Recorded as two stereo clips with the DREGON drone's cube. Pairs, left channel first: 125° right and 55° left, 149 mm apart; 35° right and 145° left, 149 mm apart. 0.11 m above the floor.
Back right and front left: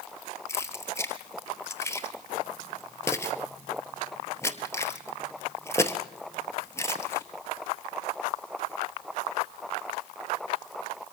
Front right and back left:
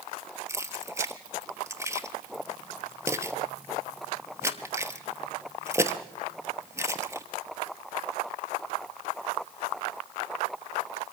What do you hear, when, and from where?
0.5 s keys jangling: 170° right, 1.0 m